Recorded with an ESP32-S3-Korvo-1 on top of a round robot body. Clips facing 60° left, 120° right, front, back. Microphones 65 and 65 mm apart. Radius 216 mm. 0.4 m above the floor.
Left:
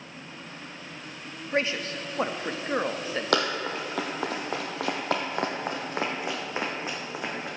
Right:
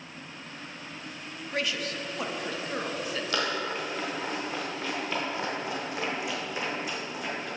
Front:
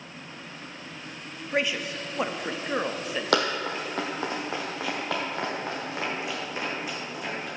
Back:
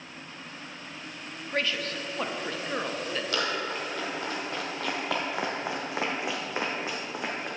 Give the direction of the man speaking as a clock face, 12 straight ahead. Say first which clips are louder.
Left 4 dB, front 2 dB; 10 o'clock.